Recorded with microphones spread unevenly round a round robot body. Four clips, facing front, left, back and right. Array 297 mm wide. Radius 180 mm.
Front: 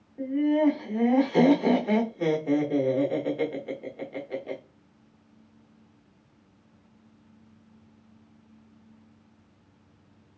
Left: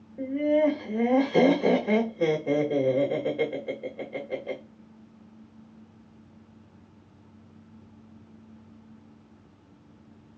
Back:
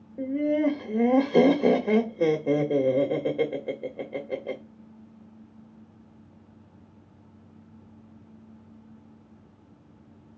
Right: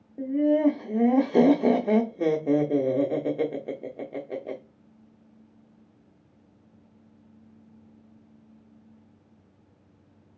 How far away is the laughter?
About 1.1 m.